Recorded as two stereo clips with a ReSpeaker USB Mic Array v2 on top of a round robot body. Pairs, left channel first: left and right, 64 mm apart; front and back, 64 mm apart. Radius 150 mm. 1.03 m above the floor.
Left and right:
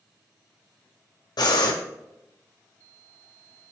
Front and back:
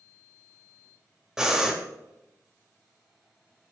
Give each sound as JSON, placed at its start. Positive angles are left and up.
{"t": 1.4, "sound": "breathing", "azimuth_deg": 100, "distance_m": 1.2}